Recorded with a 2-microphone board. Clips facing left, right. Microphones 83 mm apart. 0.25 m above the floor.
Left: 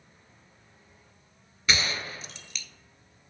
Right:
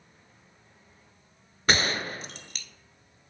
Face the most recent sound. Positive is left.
turn(degrees=-50)  # may be behind; listen again after turning